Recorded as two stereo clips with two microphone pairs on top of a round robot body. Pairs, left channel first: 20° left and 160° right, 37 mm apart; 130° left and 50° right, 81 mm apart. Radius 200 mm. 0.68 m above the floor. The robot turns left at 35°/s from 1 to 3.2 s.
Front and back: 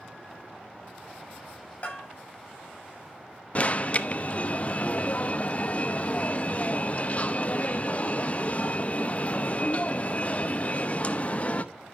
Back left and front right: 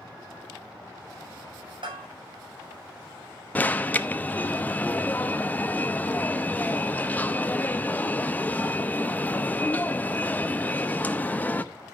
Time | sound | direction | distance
1.8 | a bell | 35° right | 7 m
3.5 | an alarm | 65° left | 1.1 m